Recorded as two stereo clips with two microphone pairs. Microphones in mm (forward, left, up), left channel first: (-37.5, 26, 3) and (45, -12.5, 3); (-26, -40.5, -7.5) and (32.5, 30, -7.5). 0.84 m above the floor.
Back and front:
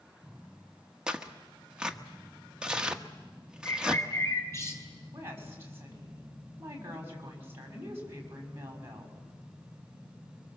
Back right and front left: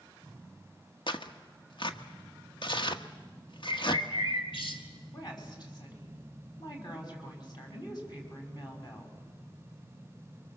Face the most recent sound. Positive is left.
turn(degrees=-90)